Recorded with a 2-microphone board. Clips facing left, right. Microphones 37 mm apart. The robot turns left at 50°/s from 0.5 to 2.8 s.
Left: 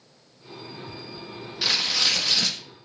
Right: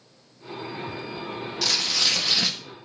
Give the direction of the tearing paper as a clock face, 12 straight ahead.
11 o'clock.